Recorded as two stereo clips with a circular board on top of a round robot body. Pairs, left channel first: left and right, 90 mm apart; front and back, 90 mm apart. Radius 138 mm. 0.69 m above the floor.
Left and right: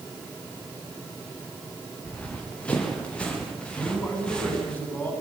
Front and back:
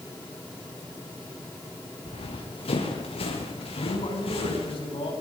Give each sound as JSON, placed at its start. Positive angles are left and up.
{"t": 2.0, "sound": "running footsteps", "azimuth_deg": 15, "distance_m": 5.0}
{"t": 3.7, "sound": "a man speaking", "azimuth_deg": 20, "distance_m": 8.5}